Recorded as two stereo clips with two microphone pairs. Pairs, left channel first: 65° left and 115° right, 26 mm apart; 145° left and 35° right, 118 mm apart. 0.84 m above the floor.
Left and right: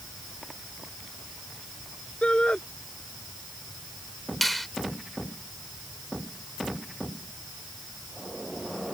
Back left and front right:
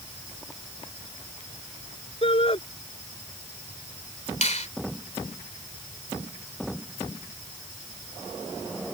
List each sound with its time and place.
2.2 s a shout: 110° left
4.4 s a finger snap: 160° left